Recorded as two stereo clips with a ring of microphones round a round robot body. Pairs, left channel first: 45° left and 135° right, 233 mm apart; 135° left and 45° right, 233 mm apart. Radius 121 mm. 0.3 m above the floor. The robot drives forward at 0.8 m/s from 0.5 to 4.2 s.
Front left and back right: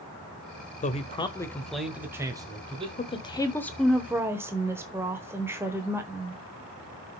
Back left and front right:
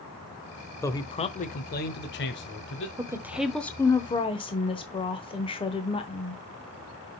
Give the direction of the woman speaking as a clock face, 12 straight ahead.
11 o'clock.